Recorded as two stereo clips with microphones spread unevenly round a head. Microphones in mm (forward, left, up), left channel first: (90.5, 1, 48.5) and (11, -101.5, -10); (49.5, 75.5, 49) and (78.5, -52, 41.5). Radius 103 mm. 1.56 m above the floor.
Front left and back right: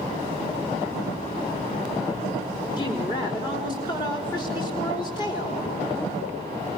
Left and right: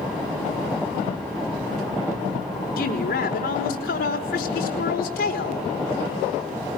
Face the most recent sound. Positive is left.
turn(degrees=120)